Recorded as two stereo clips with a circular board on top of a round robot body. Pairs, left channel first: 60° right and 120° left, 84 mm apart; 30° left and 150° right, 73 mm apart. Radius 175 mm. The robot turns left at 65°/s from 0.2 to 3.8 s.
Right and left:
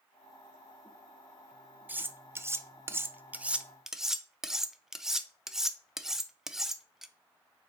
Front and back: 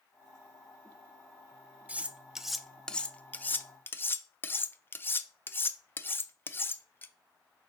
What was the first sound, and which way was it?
Cutlery clinking, 165° left.